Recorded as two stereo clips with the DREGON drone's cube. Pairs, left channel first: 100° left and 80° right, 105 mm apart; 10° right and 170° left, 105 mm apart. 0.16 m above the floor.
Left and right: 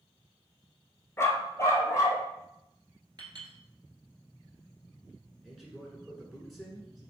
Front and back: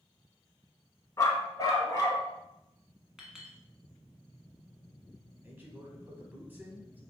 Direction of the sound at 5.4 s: 165° right.